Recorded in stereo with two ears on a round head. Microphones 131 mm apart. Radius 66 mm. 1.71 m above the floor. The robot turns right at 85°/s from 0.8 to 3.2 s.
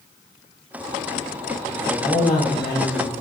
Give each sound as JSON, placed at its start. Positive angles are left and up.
{"t": 1.7, "sound": "a man speaking", "azimuth_deg": -5, "distance_m": 3.5}